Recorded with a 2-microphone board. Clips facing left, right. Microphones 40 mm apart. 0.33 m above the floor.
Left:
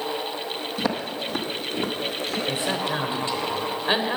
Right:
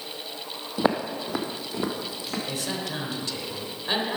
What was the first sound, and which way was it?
Footsteps, 30° right (ahead or behind).